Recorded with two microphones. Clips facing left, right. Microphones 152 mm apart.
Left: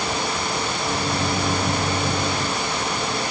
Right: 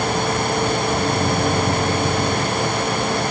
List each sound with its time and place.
0.8 s a microwave: 5° right (ahead or behind)